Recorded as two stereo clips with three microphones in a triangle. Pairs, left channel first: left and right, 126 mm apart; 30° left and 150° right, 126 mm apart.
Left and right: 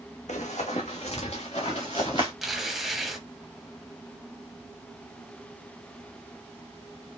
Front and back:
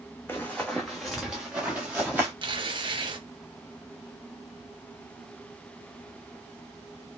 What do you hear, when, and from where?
0.3 s running footsteps: 100° left, 0.8 m; by 2.3 s 135° left, 1.7 m
2.4 s tearing paper: straight behind, 0.6 m